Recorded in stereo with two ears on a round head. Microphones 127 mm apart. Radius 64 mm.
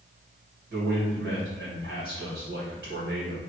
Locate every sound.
0.7 s a man speaking: 65° right (ahead or behind), 1.8 m